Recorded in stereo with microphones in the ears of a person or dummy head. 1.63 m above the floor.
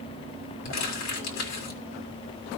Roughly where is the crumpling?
Left.